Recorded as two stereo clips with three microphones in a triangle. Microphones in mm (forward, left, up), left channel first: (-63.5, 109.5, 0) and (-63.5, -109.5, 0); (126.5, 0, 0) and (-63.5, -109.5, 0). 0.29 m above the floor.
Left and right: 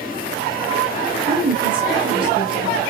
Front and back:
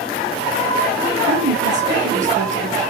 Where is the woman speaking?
140° right, 1.0 m.